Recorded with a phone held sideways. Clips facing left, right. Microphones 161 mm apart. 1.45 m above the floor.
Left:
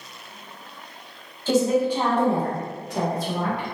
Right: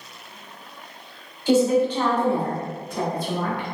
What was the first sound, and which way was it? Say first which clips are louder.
A woman speaking: right 2 dB; 15° right (ahead or behind).